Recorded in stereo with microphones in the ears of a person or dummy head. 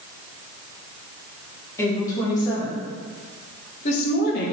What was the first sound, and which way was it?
A woman speaking, 20° left (ahead or behind).